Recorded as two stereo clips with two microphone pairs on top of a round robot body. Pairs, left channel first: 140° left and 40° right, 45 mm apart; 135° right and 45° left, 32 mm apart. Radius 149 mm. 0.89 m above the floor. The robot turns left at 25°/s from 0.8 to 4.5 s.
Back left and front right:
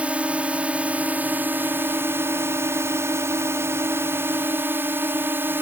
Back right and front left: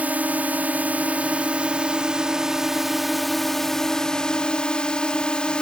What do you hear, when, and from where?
0.0 s a drone: 20° left; by 5.6 s 70° right